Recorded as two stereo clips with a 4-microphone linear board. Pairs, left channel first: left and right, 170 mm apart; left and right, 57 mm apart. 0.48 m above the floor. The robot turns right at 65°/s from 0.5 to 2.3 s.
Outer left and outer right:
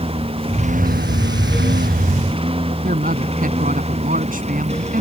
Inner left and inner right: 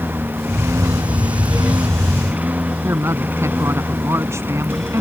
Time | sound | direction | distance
0.0 | a lawn mower | 35° right (ahead or behind) | ?
2.8 | a woman speaking | 55° right (ahead or behind) | ?